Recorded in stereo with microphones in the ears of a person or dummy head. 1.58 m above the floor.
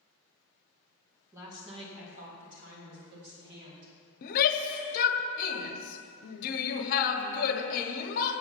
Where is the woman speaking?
15° right (ahead or behind), 1.6 m; by 3.9 s 65° right (ahead or behind), 4 m.